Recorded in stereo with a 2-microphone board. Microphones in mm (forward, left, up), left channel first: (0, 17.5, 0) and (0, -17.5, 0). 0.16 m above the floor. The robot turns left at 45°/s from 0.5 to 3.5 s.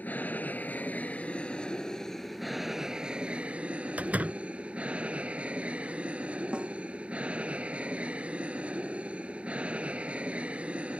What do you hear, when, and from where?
0.0 s an aircraft: 90° left; by 11.0 s 45° right
4.0 s a door slam: 55° right (ahead or behind)
6.5 s a snare drum: 35° right (ahead or behind)